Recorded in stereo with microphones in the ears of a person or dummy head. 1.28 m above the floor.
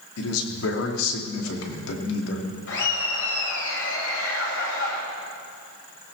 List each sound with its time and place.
0.2 s a man speaking: 90° left, 2.5 m
2.7 s laughter: 85° left, 6 m